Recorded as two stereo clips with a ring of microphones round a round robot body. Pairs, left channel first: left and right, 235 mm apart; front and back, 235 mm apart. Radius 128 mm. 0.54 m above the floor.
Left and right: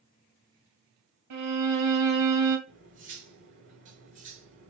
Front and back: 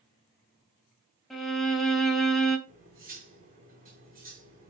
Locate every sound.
1.3 s a violin: 90° right, 2 m
2.7 s cutlery clinking: 125° right, 4.5 m